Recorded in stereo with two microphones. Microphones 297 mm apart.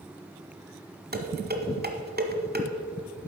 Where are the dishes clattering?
30° right (ahead or behind), 1.1 m.